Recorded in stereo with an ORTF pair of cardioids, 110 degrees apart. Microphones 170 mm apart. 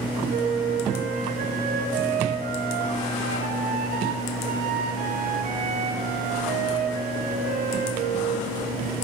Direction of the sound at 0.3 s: 55° right.